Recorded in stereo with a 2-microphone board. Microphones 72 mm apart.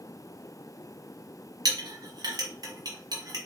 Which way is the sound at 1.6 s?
70° right (ahead or behind).